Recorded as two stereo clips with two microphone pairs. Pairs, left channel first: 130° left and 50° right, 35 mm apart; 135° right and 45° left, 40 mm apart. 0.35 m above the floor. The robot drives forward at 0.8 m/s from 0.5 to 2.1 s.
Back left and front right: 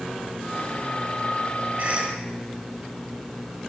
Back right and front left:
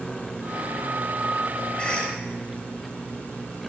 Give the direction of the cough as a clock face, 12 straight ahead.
3 o'clock.